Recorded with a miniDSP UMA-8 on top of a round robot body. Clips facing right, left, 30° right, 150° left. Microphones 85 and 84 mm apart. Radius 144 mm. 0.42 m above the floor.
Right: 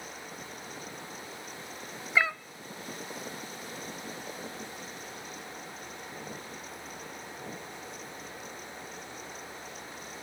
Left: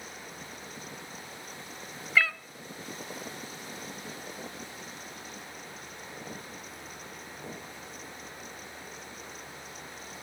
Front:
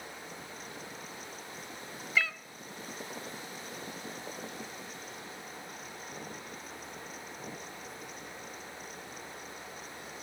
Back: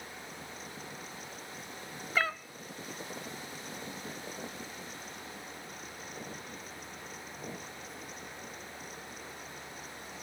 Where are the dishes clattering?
I don't hear dishes clattering.